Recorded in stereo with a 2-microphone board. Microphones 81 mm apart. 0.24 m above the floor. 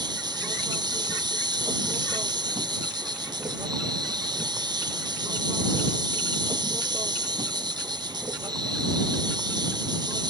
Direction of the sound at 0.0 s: 70° right (ahead or behind).